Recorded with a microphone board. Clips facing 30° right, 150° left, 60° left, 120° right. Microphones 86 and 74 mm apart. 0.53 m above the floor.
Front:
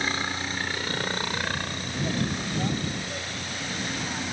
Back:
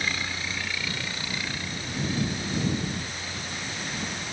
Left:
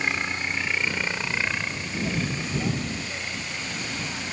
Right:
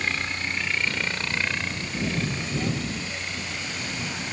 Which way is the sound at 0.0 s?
5° right.